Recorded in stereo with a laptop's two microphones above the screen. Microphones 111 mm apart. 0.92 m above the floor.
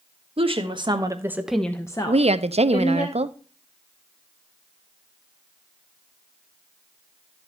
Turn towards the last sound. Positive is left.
turn(degrees=-70)  # may be behind; listen again after turning